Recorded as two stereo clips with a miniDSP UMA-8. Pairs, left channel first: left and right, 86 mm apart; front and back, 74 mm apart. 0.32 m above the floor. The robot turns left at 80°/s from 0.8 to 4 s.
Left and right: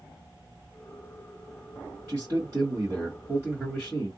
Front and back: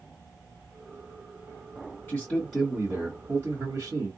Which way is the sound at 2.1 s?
35° right.